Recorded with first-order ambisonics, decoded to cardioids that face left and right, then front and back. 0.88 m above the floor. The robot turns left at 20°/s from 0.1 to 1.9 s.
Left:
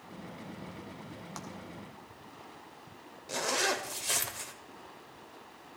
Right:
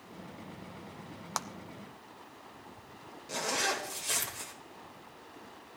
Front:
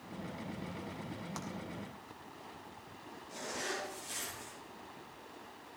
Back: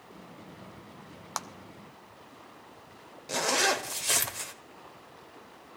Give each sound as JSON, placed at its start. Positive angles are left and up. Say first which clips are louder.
{"t": 1.4, "sound": "a clap", "louder": "right 10 dB, back 12 dB", "azimuth_deg": -135, "distance_m": 0.6}
{"t": 3.3, "sound": "a zipper", "louder": "left 1 dB, back 14 dB", "azimuth_deg": 170, "distance_m": 1.2}